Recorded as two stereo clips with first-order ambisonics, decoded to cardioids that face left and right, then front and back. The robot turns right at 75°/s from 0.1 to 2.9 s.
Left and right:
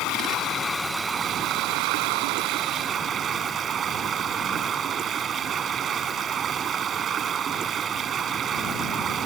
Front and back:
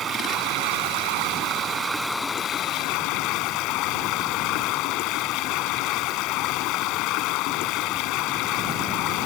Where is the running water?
120° left; by 9.3 s 30° right.